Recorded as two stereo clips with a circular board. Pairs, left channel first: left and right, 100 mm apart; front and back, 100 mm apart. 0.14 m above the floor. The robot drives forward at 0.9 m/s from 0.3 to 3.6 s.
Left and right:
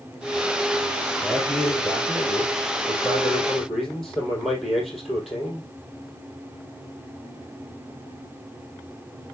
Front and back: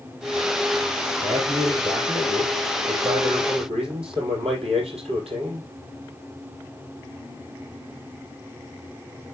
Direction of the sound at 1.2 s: 175° left.